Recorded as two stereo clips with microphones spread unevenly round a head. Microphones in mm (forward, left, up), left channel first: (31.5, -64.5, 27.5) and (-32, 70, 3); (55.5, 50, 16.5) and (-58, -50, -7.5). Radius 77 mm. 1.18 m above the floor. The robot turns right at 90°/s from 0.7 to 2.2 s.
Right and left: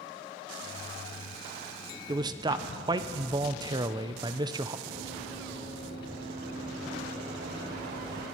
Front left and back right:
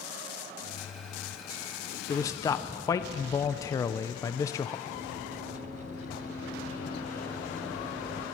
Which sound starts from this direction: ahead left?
Running footsteps, at 4.9 s.